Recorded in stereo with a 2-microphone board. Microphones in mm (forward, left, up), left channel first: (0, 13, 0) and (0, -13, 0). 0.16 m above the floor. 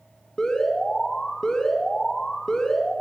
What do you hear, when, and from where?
0.4 s an alarm: 20° left (ahead or behind), 2 m